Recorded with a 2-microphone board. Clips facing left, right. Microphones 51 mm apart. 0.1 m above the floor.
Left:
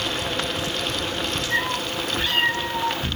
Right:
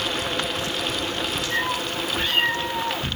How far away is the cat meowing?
About 1.6 m.